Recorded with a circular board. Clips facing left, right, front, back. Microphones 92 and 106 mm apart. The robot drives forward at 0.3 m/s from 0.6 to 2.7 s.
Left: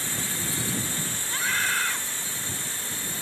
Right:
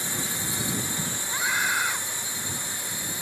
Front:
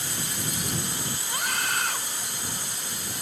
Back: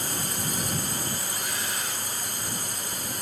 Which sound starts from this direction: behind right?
A drone, at 0.0 s.